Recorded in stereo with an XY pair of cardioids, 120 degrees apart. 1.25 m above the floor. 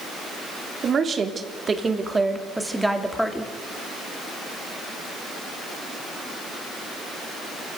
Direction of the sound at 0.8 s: 40° right.